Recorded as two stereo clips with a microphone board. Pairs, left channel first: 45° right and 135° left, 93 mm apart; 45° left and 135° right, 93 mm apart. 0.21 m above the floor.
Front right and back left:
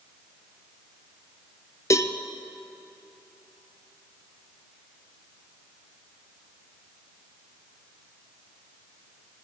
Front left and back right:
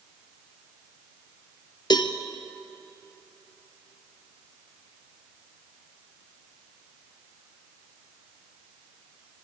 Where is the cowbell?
10° left, 0.9 m.